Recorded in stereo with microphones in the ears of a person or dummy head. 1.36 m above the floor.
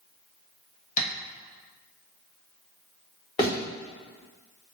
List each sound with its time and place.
1.0 s tapping: 45° left (ahead or behind), 1.2 m
3.4 s a thud: 25° left (ahead or behind), 1.1 m